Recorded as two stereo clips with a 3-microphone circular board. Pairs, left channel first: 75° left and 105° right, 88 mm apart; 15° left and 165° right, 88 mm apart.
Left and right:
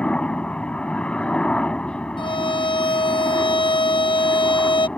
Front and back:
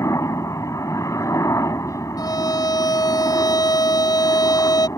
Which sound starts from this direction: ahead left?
A violin, at 2.2 s.